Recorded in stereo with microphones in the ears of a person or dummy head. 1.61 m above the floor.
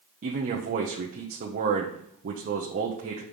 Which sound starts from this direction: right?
A man speaking, at 0.2 s.